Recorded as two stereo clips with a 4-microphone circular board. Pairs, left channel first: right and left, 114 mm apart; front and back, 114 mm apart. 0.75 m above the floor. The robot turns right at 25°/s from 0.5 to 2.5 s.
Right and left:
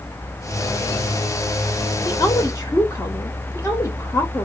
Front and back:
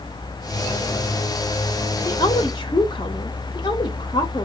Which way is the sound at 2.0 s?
45° right.